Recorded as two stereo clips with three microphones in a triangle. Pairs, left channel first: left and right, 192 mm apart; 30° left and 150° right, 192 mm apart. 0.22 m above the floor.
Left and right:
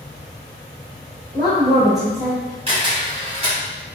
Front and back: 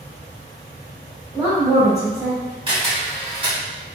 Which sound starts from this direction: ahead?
A woman speaking, at 1.3 s.